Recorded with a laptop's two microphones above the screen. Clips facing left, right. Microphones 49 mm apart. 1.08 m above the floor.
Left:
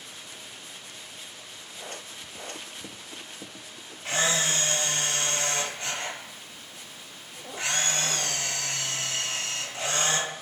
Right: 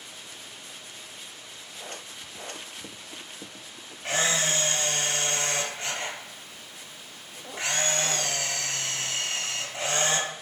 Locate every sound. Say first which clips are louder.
4.0 s a camera shutter: even; 40° right (ahead or behind), 1.7 m